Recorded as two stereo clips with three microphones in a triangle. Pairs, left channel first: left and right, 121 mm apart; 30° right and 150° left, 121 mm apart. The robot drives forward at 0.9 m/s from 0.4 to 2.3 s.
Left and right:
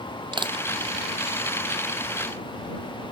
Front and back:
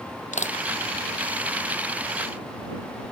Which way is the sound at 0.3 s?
40° right.